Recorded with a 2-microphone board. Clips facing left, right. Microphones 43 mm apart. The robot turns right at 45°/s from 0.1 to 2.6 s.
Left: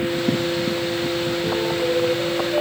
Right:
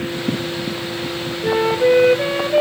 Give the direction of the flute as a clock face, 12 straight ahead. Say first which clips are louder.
Right 10 dB; 3 o'clock.